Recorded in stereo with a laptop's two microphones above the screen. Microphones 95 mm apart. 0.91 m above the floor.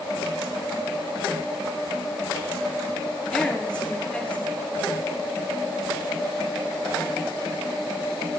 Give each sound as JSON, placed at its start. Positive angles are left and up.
{"t": 3.3, "sound": "a woman speaking", "side_deg": 10, "distance_m": 2.5}